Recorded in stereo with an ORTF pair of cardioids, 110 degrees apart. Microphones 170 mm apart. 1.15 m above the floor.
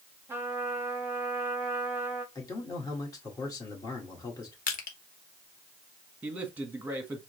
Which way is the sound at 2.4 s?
20° left.